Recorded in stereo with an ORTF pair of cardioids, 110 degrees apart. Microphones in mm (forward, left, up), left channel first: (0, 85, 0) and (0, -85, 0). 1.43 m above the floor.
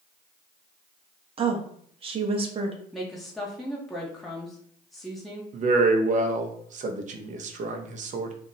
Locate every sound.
1.4 s a woman speaking: 35° right, 0.8 m
2.9 s a woman speaking: straight ahead, 0.6 m
5.5 s a man speaking: 50° right, 0.7 m